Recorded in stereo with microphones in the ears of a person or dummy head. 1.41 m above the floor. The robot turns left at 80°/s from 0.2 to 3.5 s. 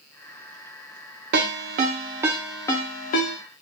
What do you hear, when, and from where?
1.3 s a ringtone: 60° right (ahead or behind), 0.6 m; by 3.4 s 60° left (ahead or behind), 0.6 m